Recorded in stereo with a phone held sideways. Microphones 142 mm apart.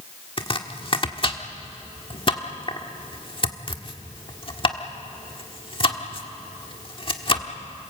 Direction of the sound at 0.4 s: 40° left (ahead or behind).